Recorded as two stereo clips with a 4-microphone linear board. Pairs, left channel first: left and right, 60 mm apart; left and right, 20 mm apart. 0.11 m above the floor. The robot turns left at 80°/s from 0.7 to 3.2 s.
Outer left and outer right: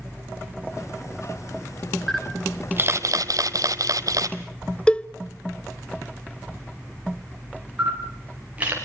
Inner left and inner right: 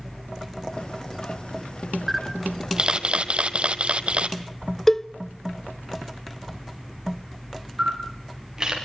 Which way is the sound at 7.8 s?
25° right (ahead or behind).